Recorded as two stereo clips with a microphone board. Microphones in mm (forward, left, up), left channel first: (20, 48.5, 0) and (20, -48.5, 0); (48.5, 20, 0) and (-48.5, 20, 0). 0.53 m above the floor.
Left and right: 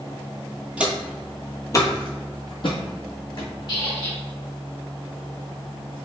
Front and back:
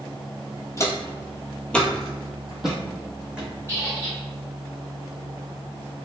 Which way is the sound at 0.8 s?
25° right.